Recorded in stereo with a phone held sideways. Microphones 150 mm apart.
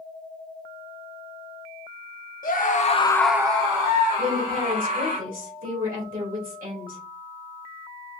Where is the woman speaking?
70° right (ahead or behind), 1.7 m.